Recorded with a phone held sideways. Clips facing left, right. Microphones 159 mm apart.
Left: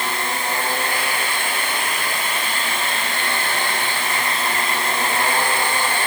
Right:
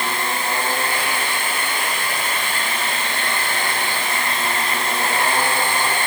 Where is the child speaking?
I don't hear a child speaking.